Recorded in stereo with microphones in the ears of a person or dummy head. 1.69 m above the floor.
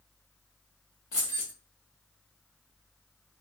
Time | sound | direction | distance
1.1 | keys jangling | 40° left (ahead or behind) | 0.9 m